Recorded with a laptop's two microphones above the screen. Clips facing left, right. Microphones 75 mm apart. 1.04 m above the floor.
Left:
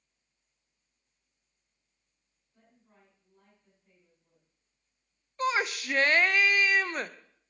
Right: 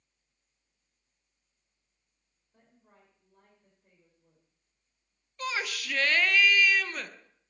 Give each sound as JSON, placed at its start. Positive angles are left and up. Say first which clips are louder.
{"t": 2.5, "sound": "a woman speaking", "louder": "right 1 dB", "side_deg": -60, "distance_m": 4.5}
{"t": 5.4, "sound": "a shout", "louder": "left 5 dB", "side_deg": 30, "distance_m": 0.6}